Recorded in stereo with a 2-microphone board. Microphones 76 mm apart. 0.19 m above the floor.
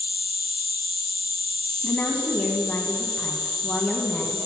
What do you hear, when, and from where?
0.0 s an insect: 60° left (ahead or behind), 1.1 m
1.8 s a woman speaking: 20° left (ahead or behind), 1.4 m